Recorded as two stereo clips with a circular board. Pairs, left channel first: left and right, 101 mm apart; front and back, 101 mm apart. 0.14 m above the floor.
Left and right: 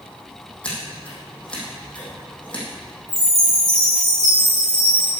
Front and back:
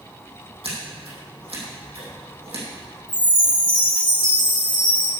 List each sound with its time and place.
0.6 s scissors: 170° left, 4.5 m
3.1 s a chime: 30° right, 2.5 m